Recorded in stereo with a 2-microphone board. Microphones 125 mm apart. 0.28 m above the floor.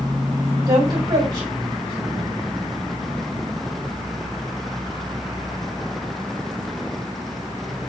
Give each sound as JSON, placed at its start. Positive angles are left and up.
{"t": 0.7, "sound": "a woman speaking", "side_deg": -40, "distance_m": 1.7}